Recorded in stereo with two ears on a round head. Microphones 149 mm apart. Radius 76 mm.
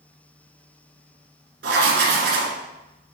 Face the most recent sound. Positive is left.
turn(degrees=-75)  # may be behind; listen again after turning